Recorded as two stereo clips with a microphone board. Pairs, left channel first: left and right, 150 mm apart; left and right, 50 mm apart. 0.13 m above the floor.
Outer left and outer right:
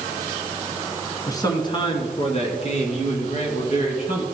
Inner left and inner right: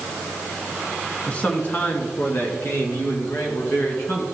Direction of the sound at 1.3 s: 25° left (ahead or behind).